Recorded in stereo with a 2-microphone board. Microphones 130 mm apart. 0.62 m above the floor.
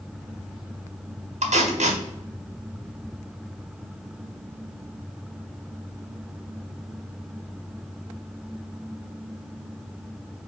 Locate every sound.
1.4 s tape being pulled: 60° right (ahead or behind), 0.9 m